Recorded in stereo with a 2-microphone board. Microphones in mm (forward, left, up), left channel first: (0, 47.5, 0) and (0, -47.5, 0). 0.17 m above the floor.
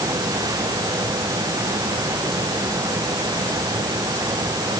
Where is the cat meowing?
No cat meowing in this recording.